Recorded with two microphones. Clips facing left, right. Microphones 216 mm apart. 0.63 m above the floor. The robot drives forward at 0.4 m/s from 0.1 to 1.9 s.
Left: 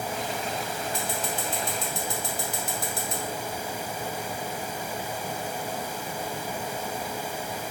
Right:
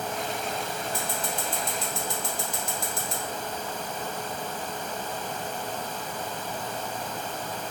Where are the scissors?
75° left (ahead or behind), 1.1 m; by 3.2 s 60° left (ahead or behind), 1.2 m.